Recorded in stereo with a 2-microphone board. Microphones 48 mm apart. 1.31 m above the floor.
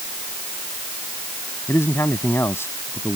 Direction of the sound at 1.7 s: 60° left (ahead or behind).